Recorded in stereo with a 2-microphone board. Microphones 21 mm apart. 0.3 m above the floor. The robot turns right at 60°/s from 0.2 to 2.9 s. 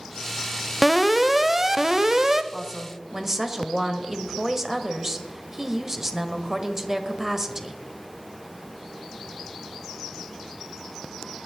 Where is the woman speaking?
20° right (ahead or behind), 1.1 m; by 7.8 s 15° right (ahead or behind), 1.1 m.